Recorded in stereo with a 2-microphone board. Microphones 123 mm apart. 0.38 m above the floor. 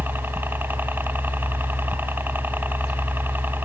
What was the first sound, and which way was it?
A helicopter, 15° right (ahead or behind).